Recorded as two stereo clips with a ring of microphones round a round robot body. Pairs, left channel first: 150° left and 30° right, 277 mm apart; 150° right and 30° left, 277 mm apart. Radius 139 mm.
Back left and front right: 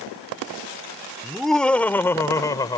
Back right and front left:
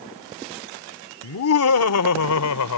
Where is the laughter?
120° right; by 2.8 s 135° right.